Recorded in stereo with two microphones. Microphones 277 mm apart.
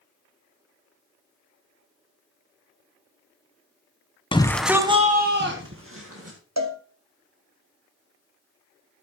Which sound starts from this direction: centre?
A shout, at 4.3 s.